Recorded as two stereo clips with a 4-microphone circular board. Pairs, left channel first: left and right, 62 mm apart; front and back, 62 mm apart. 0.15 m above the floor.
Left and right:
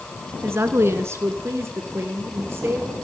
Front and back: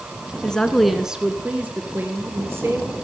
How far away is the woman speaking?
About 1.4 m.